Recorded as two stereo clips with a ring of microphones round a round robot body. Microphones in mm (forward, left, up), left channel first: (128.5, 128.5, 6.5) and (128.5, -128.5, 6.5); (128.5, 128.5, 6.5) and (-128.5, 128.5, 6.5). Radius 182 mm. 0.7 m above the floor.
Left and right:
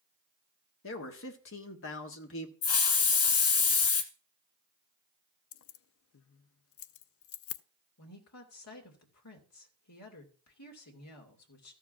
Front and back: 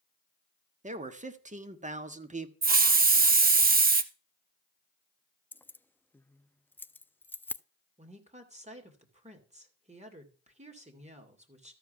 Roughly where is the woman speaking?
Behind left.